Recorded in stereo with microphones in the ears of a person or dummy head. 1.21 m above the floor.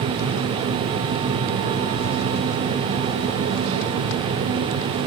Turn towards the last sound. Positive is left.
No sound to turn to.